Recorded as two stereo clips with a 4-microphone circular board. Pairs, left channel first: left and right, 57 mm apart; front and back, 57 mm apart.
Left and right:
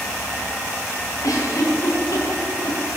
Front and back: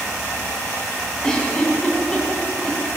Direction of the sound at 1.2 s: 80° left.